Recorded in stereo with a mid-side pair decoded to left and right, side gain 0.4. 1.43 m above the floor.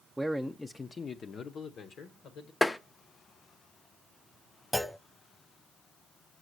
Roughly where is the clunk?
Ahead.